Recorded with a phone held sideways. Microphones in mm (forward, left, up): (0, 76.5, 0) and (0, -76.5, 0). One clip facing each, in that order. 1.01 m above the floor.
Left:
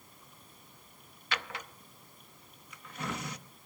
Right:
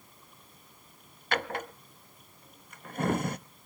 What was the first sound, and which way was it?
A drawer, 50° right (ahead or behind).